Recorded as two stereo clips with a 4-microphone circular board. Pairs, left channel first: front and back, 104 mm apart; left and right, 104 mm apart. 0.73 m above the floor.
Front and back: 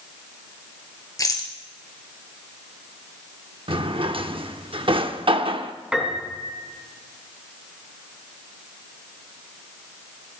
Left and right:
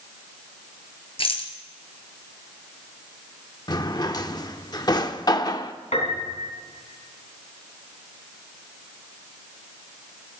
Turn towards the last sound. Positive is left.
turn(degrees=100)